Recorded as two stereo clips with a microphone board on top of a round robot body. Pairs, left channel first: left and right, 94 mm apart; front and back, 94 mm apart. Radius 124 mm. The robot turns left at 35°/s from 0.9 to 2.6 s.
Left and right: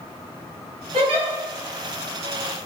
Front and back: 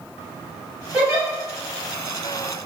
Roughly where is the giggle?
Right.